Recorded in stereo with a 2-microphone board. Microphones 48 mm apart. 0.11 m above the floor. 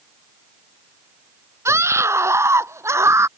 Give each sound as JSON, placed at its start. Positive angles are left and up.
{"t": 1.6, "sound": "a scream", "side_deg": -70}